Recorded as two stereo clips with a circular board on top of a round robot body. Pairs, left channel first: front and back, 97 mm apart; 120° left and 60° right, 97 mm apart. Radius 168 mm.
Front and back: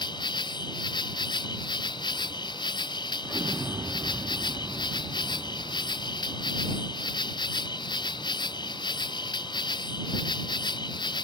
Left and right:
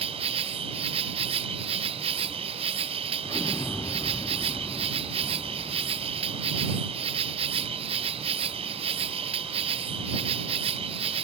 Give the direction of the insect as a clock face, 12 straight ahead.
1 o'clock.